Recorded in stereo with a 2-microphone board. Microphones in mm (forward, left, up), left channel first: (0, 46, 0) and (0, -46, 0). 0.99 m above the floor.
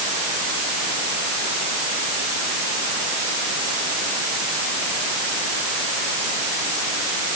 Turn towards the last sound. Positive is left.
No sound to turn to.